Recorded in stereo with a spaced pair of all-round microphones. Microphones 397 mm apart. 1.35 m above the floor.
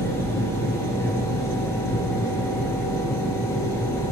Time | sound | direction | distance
0.0 | a machine running | 5° left (ahead or behind) | 0.9 m